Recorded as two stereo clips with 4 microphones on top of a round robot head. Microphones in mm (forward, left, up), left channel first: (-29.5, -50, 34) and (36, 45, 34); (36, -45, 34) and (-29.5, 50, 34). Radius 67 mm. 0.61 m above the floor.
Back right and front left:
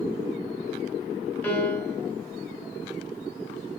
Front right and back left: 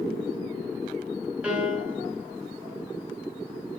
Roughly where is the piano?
Behind.